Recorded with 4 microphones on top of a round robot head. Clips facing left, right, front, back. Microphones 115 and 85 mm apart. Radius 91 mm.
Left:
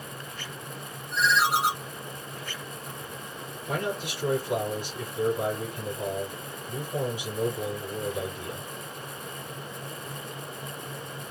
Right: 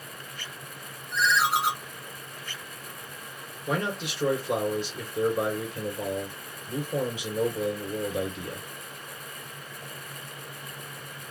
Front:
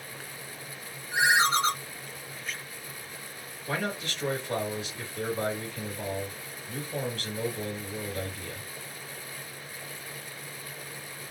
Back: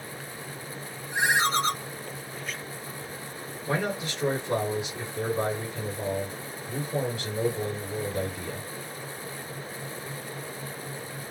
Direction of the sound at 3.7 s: 105° right.